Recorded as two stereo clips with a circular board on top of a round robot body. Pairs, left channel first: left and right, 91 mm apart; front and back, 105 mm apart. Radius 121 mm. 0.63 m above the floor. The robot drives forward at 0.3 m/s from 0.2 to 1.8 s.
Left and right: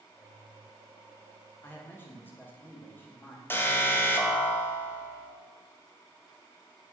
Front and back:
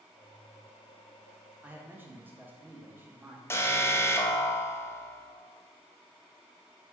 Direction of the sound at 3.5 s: 45° left.